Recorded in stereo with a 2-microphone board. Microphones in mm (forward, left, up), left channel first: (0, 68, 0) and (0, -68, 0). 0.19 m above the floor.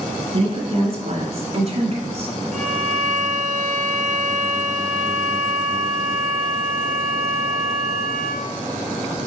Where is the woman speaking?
45° right (ahead or behind), 2 m; by 2.4 s 50° right (ahead or behind), 1.9 m.